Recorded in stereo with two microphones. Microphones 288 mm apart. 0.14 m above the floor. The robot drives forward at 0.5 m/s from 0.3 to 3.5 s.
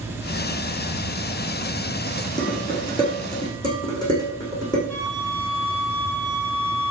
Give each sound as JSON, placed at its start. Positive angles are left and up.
{"t": 2.4, "sound": "dishes clattering", "side_deg": 15, "distance_m": 4.0}
{"t": 4.9, "sound": "a flute", "side_deg": -65, "distance_m": 6.0}